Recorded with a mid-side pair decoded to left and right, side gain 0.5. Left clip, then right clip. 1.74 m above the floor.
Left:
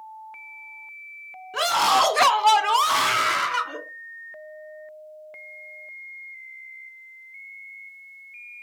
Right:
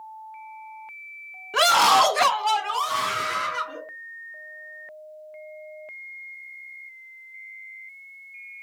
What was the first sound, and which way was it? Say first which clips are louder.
A scream: right 3 dB; 40° right.